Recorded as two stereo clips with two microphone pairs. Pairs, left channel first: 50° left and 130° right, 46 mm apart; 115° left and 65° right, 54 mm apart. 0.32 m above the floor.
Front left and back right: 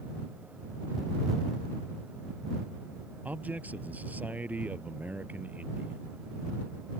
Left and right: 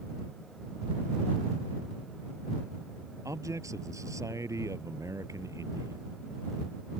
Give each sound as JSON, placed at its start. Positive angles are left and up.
{"t": 3.2, "sound": "a man speaking", "azimuth_deg": -75}